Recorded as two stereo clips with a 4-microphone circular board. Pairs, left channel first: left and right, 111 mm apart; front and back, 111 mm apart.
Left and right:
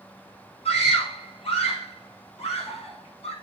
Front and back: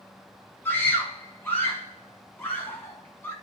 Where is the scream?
70° left, 7 m.